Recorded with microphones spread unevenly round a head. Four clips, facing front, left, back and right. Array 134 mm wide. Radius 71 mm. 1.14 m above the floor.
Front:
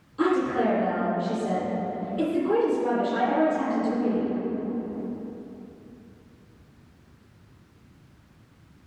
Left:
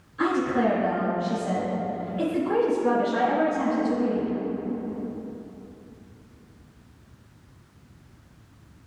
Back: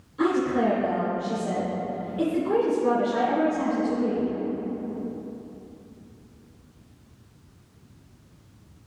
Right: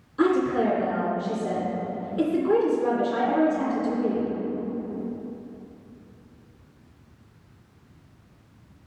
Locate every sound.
0.2 s a woman speaking: 80° right, 3 m